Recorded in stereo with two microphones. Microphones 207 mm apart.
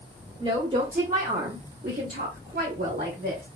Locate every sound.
0.4 s a woman speaking: 25° right (ahead or behind), 0.9 m; by 3.5 s 40° right (ahead or behind), 1.5 m